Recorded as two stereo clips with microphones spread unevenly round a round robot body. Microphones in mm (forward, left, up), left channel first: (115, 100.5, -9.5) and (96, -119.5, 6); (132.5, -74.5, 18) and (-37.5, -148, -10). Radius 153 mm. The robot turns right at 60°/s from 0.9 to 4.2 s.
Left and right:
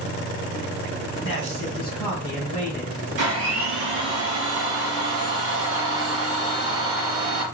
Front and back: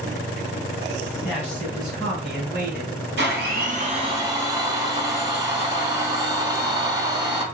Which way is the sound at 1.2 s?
120° left.